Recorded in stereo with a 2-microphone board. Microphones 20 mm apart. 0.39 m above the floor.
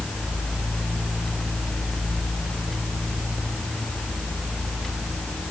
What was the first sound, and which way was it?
Only background noise.